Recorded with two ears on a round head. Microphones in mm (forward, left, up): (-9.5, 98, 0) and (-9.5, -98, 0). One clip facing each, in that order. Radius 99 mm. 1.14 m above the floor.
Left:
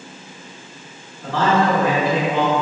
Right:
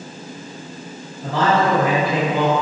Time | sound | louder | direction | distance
1.2 | a man speaking | even | 15° right (ahead or behind) | 1.6 m